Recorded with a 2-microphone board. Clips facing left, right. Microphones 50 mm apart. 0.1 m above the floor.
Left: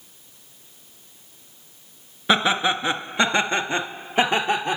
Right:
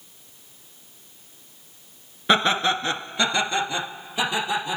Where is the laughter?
Centre (ahead or behind), 1.4 m; by 4.8 s 50° left (ahead or behind), 2.5 m.